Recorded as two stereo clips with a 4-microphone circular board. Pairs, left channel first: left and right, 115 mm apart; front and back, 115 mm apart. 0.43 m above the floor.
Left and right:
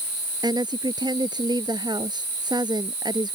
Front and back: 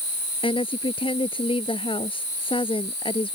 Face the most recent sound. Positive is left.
turn(degrees=-40)